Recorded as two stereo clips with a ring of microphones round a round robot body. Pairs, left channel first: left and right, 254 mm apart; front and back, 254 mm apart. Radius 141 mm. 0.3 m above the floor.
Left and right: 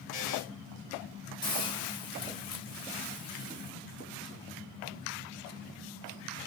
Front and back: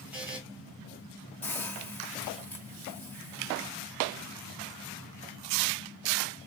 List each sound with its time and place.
0.1 s a buzzer: 95° left, 1.8 m
1.4 s a hiss: 65° left, 1.2 m